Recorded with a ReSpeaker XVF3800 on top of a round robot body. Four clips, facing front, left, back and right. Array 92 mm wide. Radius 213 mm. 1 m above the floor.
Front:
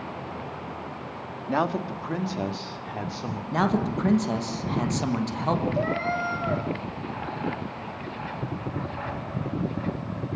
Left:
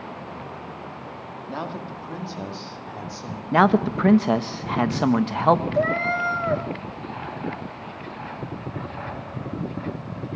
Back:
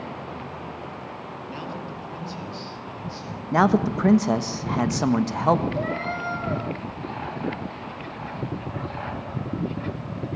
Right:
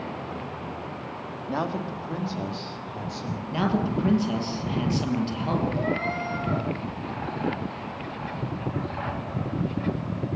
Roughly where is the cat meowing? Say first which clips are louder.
Left 5 dB, front 1 dB; left.